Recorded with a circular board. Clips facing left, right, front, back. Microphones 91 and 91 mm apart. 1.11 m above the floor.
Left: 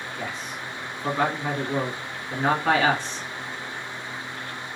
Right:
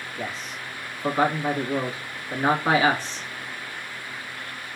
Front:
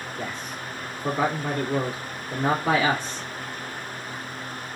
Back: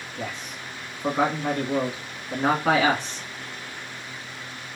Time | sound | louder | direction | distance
0.2 | a man speaking | right 2 dB, back 1 dB | 175° right | 1.6 m